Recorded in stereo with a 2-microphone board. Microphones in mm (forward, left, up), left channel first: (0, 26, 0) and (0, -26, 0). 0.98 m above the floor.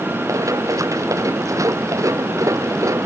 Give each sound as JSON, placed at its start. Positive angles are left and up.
{"t": 0.3, "sound": "running footsteps", "side_deg": -80}